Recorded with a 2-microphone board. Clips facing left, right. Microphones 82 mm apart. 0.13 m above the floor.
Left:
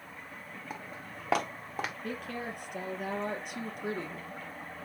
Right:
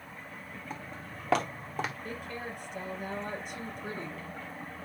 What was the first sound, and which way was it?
Footsteps, 10° left (ahead or behind).